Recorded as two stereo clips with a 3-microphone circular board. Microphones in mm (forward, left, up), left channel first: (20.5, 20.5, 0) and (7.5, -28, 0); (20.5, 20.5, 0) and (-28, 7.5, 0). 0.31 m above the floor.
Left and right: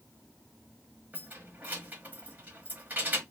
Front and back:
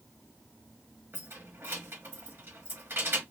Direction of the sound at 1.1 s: 150° right.